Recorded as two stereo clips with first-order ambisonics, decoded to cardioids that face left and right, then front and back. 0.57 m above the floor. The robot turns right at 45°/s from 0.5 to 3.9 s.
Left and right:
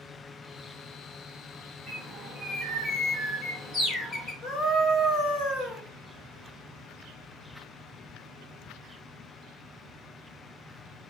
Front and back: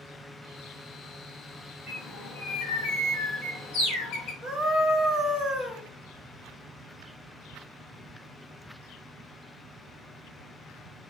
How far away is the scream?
About 1.1 m.